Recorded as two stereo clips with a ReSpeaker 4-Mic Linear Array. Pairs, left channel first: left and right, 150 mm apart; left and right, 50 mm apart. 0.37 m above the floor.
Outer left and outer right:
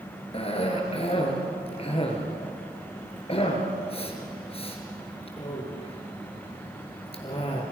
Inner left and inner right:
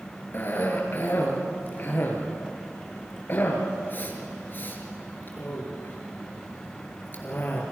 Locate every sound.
0.3 s a cough: 40° left (ahead or behind), 5 m